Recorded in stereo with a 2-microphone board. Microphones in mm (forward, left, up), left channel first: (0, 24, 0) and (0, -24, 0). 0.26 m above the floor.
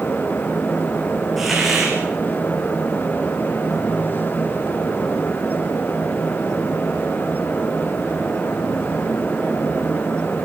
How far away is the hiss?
About 7.5 m.